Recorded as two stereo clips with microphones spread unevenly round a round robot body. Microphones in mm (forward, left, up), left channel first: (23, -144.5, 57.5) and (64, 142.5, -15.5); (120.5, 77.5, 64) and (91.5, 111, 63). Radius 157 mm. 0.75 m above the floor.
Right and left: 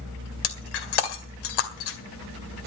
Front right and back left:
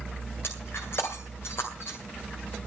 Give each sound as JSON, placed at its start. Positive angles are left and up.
{"t": 0.4, "sound": "breaking glass", "azimuth_deg": -110, "distance_m": 2.0}